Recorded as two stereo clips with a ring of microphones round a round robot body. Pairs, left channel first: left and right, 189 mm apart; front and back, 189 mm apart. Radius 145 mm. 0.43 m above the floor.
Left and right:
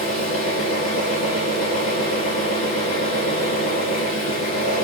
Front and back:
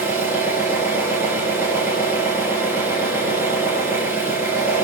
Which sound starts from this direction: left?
An engine running, at 0.0 s.